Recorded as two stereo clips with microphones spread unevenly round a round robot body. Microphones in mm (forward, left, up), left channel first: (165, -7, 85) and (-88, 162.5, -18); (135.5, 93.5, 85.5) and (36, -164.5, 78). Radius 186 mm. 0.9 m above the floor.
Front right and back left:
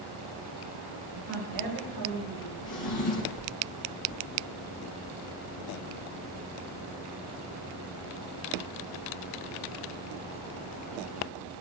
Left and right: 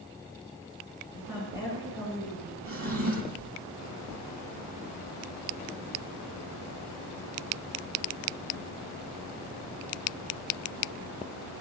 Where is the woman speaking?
165° left, 9.5 m; by 2.5 s 170° left, 11 m.